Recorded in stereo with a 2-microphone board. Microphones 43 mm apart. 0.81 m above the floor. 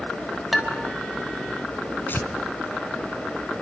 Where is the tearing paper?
55° left (ahead or behind), 1.4 m.